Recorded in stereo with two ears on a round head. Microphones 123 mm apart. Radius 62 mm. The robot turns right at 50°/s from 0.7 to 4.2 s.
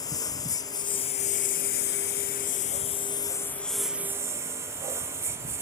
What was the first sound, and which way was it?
A lawn mower, 25° left (ahead or behind).